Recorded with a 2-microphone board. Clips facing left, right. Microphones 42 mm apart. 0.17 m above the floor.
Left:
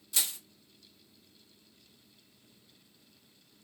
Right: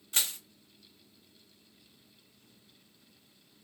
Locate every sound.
0.1 s crushing: 45° right (ahead or behind), 1.6 m